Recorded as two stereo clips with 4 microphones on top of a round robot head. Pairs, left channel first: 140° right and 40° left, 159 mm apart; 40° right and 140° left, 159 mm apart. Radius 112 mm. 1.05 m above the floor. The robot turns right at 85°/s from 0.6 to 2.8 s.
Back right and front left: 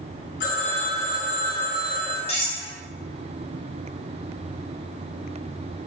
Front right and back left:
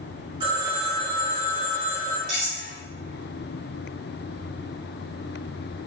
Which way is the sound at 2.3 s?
165° left.